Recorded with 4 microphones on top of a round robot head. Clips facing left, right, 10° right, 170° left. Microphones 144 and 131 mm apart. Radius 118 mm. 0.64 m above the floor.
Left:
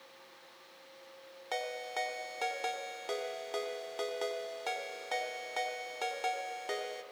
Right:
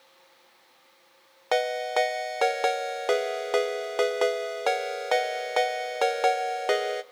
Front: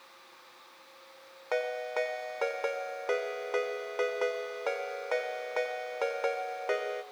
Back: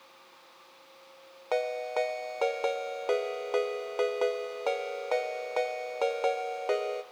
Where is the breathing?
I don't hear breathing.